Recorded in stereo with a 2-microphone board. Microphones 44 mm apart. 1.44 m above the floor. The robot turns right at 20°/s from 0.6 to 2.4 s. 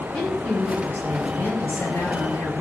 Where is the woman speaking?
40° left, 3 m; by 2.5 s 75° left, 3 m.